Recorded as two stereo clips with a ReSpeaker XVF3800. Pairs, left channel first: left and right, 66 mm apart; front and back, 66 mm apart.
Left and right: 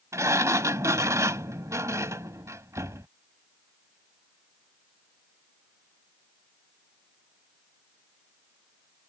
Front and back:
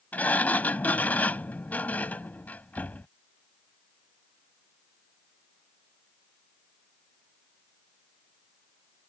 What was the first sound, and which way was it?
A sliding door, 60° right.